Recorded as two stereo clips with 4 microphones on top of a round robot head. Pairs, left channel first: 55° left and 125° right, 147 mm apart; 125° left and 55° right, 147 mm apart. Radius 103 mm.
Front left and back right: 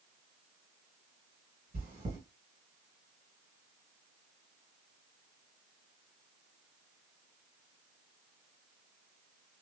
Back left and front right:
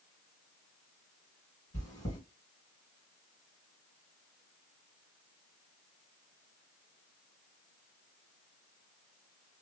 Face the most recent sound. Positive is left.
turn(degrees=-165)